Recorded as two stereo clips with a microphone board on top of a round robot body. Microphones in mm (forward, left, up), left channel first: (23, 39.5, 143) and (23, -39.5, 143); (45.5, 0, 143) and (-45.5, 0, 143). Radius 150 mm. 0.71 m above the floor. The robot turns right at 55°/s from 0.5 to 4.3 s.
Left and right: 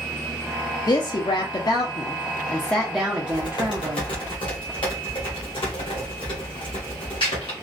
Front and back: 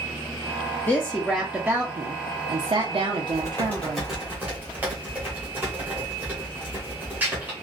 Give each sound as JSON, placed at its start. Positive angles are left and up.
{"t": 0.9, "sound": "a woman speaking", "azimuth_deg": 60, "distance_m": 0.7}
{"t": 3.3, "sound": "typing on a keyboard", "azimuth_deg": 50, "distance_m": 0.9}